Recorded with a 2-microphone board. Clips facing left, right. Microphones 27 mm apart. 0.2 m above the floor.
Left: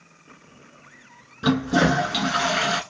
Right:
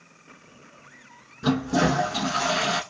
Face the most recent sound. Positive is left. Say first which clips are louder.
# left 3 dB
turn(degrees=65)  # may be behind; listen again after turning